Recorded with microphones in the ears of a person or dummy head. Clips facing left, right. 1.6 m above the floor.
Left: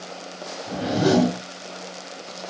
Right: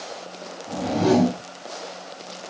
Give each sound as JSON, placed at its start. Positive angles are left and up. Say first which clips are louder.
{"t": 0.7, "sound": "a whoosh", "louder": "even", "side_deg": 15, "distance_m": 2.5}